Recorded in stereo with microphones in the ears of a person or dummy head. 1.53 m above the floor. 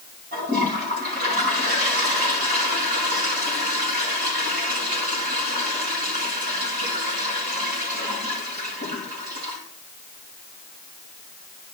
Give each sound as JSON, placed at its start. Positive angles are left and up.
{"t": 0.3, "sound": "a toilet flushing", "side_deg": -55, "distance_m": 6.0}